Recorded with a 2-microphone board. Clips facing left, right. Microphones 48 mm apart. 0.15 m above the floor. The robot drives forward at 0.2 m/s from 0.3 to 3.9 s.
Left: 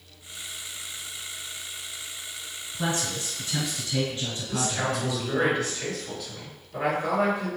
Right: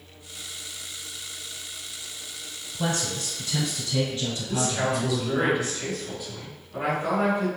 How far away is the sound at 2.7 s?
About 1.7 m.